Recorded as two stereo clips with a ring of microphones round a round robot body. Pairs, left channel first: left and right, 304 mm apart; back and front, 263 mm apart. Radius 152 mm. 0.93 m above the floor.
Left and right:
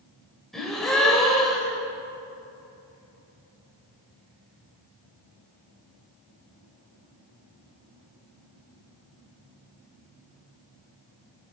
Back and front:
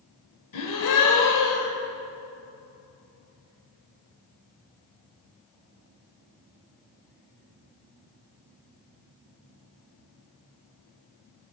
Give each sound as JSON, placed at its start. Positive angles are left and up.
{"t": 0.5, "sound": "a gasp", "azimuth_deg": 180, "distance_m": 1.9}